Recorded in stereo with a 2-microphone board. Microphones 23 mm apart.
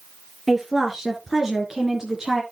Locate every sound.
0.5 s a woman speaking: centre (ahead or behind), 2.5 m; by 2.4 s 20° right (ahead or behind), 2.5 m